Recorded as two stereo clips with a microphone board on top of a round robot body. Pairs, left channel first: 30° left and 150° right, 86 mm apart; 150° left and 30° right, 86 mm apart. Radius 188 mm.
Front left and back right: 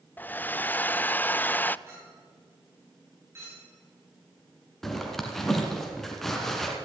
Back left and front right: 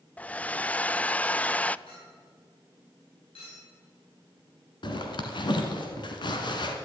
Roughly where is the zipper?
Behind left.